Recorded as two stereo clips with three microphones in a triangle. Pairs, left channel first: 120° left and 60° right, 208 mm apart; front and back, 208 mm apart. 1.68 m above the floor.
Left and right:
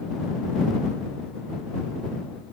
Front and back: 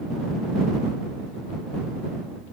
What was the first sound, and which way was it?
Only background noise.